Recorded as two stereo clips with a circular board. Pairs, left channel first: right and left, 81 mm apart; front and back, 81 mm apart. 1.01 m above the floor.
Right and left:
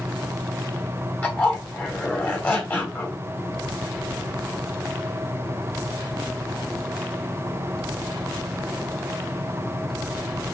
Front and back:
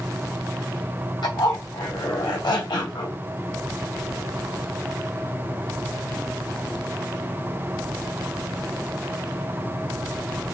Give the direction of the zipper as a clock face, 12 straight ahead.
1 o'clock.